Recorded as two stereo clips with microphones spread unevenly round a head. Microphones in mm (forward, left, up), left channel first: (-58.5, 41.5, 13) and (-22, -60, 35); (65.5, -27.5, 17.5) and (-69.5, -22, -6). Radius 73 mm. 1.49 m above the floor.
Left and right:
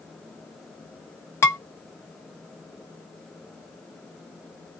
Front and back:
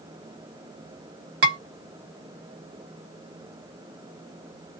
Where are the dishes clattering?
Straight behind, 1.2 m.